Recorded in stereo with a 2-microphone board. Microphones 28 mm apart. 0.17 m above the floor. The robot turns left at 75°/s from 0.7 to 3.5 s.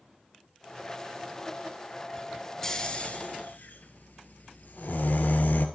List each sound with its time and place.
2.6 s snoring: 15° left (ahead or behind), 0.8 m; by 5.7 s 75° left (ahead or behind), 0.8 m